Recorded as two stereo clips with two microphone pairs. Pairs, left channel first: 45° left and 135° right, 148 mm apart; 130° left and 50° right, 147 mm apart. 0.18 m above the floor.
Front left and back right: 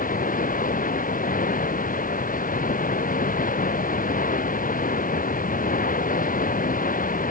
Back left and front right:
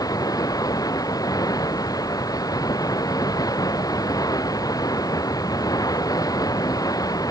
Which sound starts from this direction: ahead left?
Running water, at 0.0 s.